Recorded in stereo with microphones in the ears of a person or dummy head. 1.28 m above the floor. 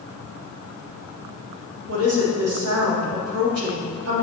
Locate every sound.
1.9 s a woman speaking: 80° right, 3 m